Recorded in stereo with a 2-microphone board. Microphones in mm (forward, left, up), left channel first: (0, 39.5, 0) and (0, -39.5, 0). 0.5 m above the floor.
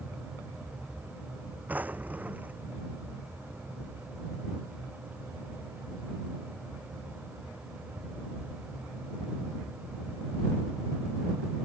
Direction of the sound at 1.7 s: 20° right (ahead or behind).